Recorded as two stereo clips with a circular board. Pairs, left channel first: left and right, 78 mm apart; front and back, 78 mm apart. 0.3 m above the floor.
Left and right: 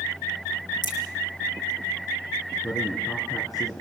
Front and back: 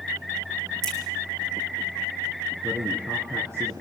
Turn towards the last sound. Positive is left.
turn(degrees=125)